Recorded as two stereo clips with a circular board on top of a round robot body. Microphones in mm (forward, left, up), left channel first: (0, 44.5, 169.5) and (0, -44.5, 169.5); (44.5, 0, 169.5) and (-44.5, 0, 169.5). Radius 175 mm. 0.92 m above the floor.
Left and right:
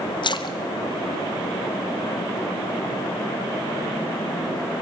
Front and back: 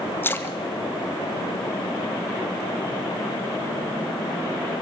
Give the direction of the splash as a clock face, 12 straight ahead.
10 o'clock.